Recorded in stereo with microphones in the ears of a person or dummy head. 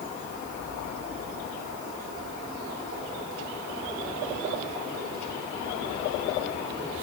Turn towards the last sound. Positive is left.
No sound to turn to.